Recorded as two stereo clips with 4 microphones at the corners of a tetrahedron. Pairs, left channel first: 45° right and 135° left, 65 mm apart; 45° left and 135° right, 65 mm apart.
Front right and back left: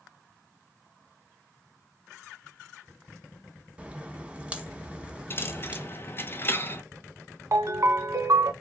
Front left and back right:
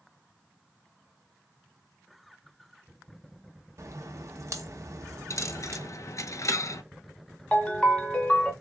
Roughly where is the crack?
Behind right.